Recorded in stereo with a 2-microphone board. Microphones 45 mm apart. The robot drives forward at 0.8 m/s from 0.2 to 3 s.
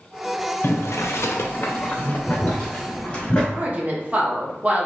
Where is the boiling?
60° left (ahead or behind), 0.7 m; by 3.4 s 20° left (ahead or behind), 1.7 m.